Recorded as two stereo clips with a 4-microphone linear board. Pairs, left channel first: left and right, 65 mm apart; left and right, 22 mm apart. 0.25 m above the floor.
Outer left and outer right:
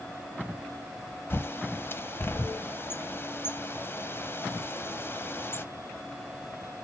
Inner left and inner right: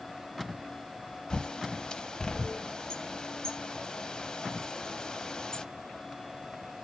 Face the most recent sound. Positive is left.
turn(degrees=40)  # may be behind; listen again after turning